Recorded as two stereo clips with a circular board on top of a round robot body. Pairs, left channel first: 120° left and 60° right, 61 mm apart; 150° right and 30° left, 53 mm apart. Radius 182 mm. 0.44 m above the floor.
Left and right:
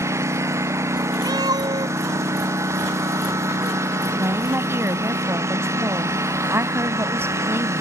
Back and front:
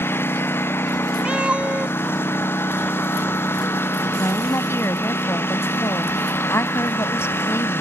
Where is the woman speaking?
110° right.